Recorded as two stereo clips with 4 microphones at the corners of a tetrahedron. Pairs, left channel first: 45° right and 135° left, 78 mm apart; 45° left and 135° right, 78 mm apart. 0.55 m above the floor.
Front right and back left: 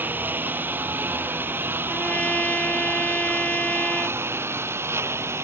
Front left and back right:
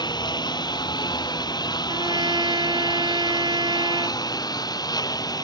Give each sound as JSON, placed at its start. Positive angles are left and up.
{"t": 0.0, "sound": "a lawn mower", "azimuth_deg": 70}
{"t": 1.9, "sound": "a trumpet", "azimuth_deg": -115}